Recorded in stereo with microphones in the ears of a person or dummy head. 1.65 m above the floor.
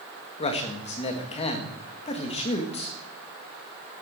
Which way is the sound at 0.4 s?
30° left (ahead or behind).